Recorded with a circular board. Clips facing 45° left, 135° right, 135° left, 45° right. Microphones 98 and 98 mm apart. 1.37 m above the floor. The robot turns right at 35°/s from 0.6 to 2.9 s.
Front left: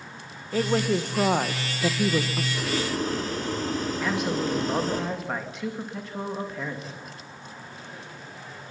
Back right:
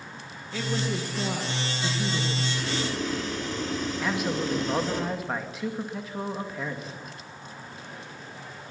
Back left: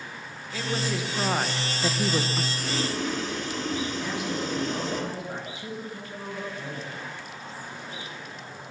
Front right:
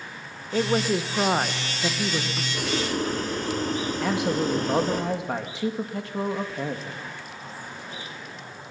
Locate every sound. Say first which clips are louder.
0.5 s a woman speaking: front left 6 dB, front right 7 dB; straight ahead, 1.2 m; by 2.4 s 65° left, 1.2 m
2.5 s boiling: front left 2 dB, front right 3 dB; 15° right, 4 m; by 5.0 s straight ahead, 4 m
4.0 s a man speaking: front left 1 dB, front right 6 dB; 45° right, 2.5 m